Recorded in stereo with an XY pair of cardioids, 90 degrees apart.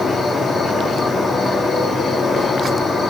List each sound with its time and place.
0.0 s an insect: 50° left, 1.9 m